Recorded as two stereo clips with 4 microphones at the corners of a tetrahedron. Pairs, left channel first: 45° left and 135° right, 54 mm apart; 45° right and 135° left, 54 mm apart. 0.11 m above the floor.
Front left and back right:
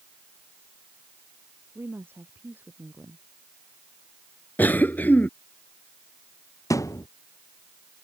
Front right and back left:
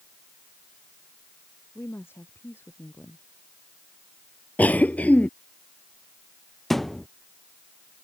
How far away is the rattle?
I don't hear a rattle.